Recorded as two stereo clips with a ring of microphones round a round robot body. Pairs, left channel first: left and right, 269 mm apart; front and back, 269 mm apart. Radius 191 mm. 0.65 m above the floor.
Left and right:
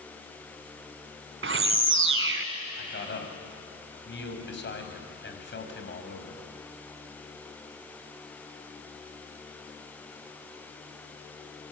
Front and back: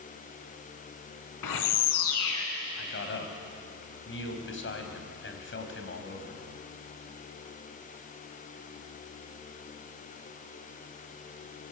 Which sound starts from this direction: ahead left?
A man speaking, at 2.8 s.